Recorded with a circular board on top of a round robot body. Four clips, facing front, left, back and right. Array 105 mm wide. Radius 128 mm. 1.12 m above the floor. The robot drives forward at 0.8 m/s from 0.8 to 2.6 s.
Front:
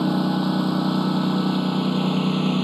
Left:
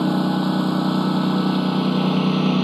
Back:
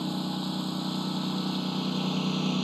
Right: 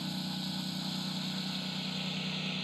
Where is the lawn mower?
60° left; by 2.6 s 70° left.